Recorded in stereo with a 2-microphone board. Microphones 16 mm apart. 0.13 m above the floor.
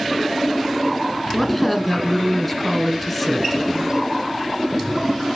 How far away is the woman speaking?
About 1.9 m.